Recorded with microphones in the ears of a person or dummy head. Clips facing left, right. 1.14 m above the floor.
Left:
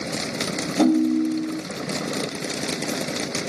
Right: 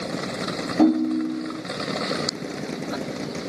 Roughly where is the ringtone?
Centre.